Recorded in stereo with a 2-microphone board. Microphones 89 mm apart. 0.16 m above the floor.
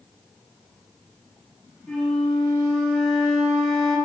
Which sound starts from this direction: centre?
A flute, at 1.9 s.